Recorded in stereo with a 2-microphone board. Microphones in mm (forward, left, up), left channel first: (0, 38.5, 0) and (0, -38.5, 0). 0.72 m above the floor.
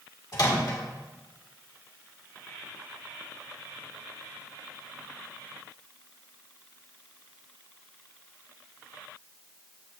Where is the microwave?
55° left (ahead or behind), 1.8 m.